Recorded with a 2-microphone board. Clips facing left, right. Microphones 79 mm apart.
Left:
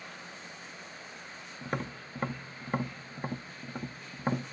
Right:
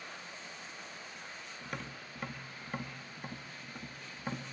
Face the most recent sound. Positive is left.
turn(degrees=40)  # may be behind; listen again after turning